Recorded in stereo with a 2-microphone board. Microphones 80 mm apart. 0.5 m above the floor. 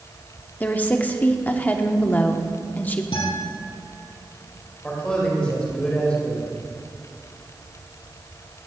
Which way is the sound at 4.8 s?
15° left (ahead or behind).